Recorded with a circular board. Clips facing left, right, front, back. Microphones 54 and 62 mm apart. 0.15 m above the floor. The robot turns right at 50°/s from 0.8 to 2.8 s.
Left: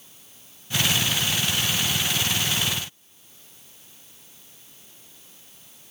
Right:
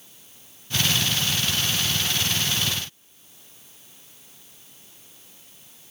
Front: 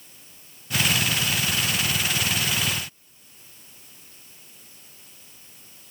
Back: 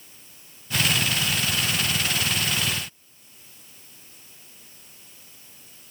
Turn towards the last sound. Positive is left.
No sound to turn to.